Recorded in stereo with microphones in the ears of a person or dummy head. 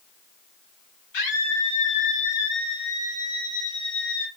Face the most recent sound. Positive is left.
turn(degrees=85)